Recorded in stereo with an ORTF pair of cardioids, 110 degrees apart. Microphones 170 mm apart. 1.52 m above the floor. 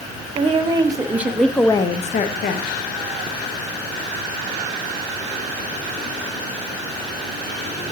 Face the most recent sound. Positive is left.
turn(degrees=75)